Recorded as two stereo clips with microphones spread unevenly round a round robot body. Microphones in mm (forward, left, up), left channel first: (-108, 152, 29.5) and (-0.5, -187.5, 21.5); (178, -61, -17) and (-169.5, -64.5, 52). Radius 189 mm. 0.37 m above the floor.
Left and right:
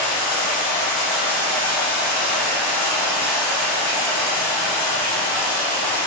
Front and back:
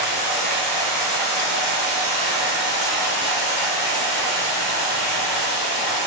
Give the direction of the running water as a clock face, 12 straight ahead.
11 o'clock.